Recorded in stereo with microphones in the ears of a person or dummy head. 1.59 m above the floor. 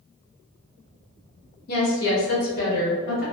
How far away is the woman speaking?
About 0.8 m.